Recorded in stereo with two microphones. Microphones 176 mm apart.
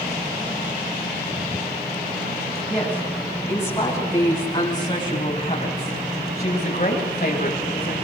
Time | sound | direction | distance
2.7 | a woman speaking | 10° left (ahead or behind) | 8.5 m